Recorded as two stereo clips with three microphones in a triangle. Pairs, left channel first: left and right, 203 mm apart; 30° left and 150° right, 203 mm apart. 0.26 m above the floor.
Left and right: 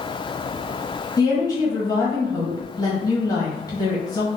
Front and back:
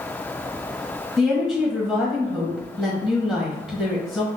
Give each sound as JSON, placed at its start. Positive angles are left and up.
{"t": 1.2, "sound": "a woman speaking", "azimuth_deg": 125, "distance_m": 1.2}